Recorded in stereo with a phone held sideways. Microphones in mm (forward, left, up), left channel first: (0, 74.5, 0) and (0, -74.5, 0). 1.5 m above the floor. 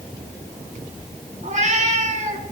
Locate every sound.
1.4 s a cat meowing: 50° right (ahead or behind), 1.3 m